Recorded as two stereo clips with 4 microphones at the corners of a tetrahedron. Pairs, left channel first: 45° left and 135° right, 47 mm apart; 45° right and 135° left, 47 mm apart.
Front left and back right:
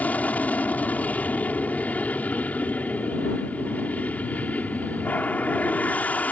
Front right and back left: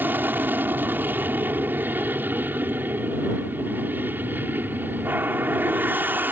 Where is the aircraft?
100° left.